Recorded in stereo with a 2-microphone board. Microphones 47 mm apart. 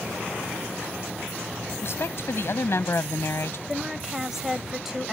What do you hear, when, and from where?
1.8 s a woman speaking: 60° left (ahead or behind)
3.7 s a woman speaking: 5° right (ahead or behind)